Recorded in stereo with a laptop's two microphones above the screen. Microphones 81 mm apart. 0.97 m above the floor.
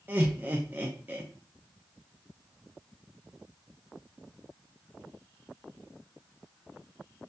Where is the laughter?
25° right (ahead or behind), 0.5 m.